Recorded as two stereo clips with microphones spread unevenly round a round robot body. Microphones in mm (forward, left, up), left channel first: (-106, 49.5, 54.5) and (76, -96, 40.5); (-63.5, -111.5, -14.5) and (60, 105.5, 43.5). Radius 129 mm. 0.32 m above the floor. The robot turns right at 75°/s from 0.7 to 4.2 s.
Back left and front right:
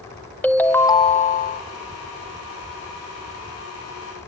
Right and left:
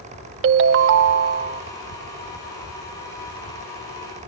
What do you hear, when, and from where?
0.4 s a ringtone: 60° left, 0.6 m; by 1.6 s 130° left, 0.6 m